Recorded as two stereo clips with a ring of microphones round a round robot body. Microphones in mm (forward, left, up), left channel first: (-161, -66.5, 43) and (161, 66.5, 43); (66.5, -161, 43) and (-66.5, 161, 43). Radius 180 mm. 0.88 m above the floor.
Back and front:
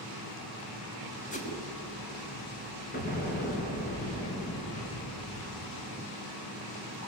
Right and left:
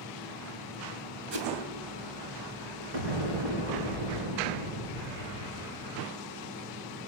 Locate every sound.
1.3 s a whoosh: 135° left, 3 m
2.9 s an explosion: 135° left, 3.5 m